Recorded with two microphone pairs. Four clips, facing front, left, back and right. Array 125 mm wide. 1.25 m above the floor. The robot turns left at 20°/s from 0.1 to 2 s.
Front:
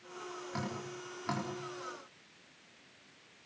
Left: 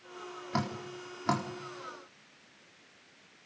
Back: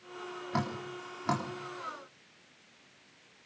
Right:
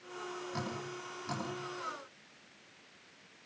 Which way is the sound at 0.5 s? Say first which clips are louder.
Left 9 dB, back 7 dB; 125° left.